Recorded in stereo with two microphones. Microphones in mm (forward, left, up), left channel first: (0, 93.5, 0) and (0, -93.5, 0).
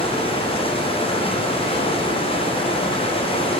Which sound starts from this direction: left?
Running water, at 0.0 s.